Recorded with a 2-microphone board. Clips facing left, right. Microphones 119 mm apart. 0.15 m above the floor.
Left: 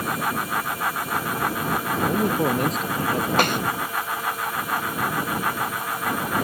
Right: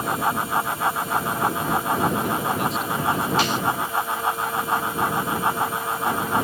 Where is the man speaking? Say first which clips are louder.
Left 2 dB; 40° left (ahead or behind); by 3.3 s 45° left (ahead or behind).